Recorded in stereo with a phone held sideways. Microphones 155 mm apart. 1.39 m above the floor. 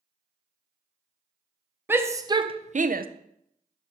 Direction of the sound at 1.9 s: 15° right (ahead or behind).